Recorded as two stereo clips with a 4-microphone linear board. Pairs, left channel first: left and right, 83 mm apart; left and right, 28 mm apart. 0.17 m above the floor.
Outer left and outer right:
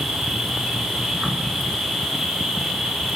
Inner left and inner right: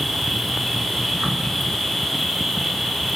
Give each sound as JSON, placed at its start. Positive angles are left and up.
{"t": 0.0, "sound": "an insect", "side_deg": 0, "distance_m": 2.5}